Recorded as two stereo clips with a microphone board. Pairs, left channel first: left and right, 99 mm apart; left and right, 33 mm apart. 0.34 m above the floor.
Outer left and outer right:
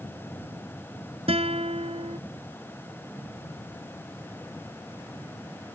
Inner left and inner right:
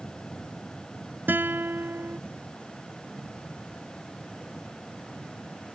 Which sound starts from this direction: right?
A guitar, at 1.3 s.